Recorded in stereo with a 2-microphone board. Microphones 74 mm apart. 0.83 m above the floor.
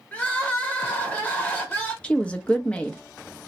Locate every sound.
0.1 s crying: 20° left (ahead or behind), 0.9 m
2.0 s a woman speaking: 15° left (ahead or behind), 0.5 m